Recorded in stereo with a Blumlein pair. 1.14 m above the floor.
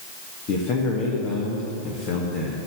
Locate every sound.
0.5 s a man speaking: 40° left, 1.6 m